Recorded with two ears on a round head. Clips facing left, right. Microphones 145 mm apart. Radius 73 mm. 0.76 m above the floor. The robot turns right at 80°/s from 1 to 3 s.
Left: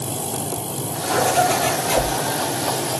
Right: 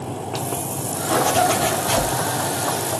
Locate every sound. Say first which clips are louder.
1.1 s a zipper: even; 95° right, 5 m; by 2.1 s 10° right, 5 m